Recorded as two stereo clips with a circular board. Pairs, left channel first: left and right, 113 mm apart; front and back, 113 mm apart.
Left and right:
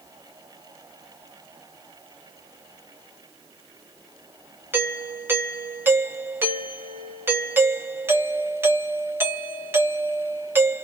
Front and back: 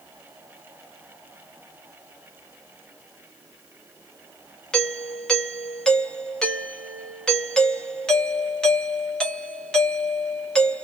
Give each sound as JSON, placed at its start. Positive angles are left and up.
{"t": 4.7, "sound": "a doorbell", "azimuth_deg": -65, "distance_m": 0.8}